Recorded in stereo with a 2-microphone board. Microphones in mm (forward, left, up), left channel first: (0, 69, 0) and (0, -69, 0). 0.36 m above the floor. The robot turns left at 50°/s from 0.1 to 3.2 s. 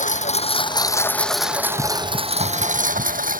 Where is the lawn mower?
65° left; by 3.4 s 90° right.